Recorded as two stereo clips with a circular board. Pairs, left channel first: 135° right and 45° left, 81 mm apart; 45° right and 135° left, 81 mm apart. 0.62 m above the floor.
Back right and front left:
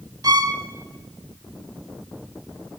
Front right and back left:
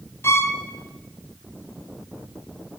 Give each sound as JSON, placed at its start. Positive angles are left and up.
{"t": 0.2, "sound": "a violin", "azimuth_deg": 10, "distance_m": 1.1}